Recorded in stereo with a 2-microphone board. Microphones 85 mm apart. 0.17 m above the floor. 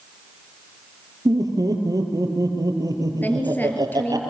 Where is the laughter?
45° right (ahead or behind), 4.5 m.